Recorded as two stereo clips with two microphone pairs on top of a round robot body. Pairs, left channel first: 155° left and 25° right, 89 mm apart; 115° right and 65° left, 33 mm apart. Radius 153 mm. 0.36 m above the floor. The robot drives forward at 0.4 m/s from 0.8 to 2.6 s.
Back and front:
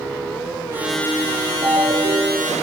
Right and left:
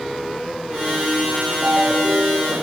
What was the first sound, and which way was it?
A ringtone, straight ahead.